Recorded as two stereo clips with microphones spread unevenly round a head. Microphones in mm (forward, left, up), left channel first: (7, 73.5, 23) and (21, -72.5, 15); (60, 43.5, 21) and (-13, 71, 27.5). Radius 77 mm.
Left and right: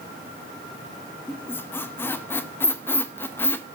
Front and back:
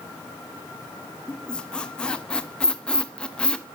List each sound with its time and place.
1.3 s a squeak: 50° left, 0.7 m